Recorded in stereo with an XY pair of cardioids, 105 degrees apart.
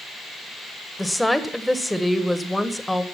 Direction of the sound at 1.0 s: 5° left.